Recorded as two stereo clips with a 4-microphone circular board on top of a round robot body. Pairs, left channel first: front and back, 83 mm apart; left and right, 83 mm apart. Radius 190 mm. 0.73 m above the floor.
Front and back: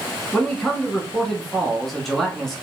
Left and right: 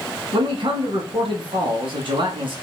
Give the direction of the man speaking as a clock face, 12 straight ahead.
3 o'clock.